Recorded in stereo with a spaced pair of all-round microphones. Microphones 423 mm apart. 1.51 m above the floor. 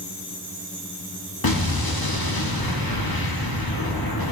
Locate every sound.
1.4 s an explosion: 55° left (ahead or behind), 1.5 m